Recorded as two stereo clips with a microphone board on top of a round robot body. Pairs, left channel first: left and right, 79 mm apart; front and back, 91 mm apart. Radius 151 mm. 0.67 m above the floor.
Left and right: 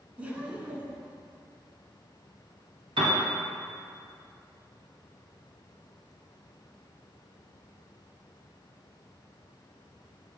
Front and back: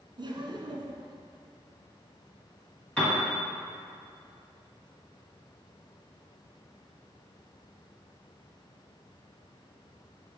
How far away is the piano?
About 1.2 m.